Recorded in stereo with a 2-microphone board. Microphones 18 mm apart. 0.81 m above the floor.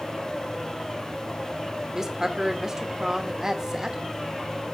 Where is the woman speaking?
30° right (ahead or behind), 1.9 m.